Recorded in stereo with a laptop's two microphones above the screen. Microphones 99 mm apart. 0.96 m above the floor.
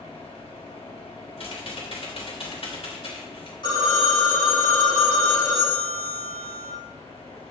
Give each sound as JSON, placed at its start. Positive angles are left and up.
{"t": 0.0, "sound": "a fan", "side_deg": 85, "distance_m": 4.0}
{"t": 1.4, "sound": "typing on a keyboard", "side_deg": 80, "distance_m": 2.5}
{"t": 3.6, "sound": "a phone ringing", "side_deg": 50, "distance_m": 3.0}